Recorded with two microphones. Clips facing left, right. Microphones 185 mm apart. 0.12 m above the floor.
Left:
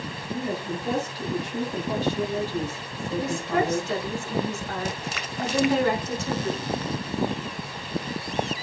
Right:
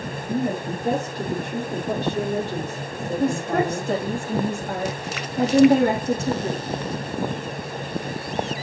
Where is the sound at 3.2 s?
50° right (ahead or behind), 4.5 m.